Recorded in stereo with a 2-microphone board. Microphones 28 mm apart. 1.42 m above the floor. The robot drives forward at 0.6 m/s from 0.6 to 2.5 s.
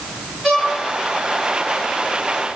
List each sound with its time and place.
0.4 s a violin: 5° left (ahead or behind), 4 m